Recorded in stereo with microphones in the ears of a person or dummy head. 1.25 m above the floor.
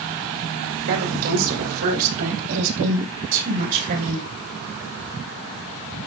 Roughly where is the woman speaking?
Right.